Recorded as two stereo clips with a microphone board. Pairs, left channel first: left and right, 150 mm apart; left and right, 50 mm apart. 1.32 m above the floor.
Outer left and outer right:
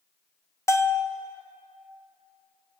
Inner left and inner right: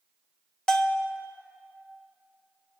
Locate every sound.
0.7 s a bell: 20° left (ahead or behind), 0.6 m